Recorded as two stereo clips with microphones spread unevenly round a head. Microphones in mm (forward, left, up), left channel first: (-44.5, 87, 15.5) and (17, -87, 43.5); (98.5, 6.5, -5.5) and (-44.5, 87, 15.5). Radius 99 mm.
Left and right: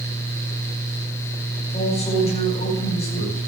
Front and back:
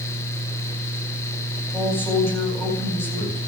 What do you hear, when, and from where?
1.7 s a man speaking: 50° left, 9.5 m